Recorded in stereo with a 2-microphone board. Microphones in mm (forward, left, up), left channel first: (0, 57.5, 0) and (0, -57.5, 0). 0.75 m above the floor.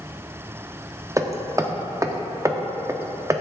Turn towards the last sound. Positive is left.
turn(degrees=-25)  # may be behind; listen again after turning